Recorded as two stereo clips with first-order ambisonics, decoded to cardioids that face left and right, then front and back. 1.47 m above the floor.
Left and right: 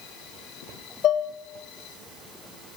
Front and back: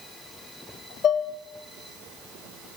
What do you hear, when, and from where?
1.0 s dishes clattering: 50° left, 0.8 m